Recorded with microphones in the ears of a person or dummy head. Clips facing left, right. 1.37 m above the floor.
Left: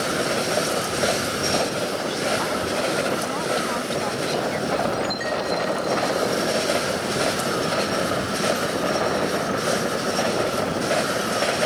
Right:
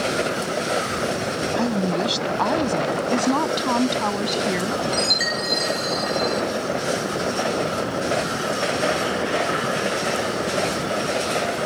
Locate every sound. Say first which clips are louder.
1.6 s a woman speaking: right 3 dB; 80° right
3.1 s a woman speaking: right 4 dB; 80° right
4.9 s a chime: left 1 dB; 65° right (ahead or behind)